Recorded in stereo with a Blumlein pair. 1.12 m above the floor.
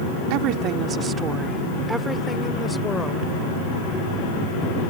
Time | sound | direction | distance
0.3 | a woman speaking | 45° right | ?